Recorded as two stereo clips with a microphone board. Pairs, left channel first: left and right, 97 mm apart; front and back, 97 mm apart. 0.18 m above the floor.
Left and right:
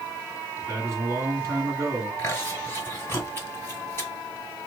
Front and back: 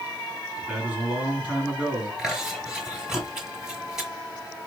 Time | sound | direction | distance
0.6 | a man speaking | 110° right | 1.8 m
2.2 | chewing | 105° left | 1.5 m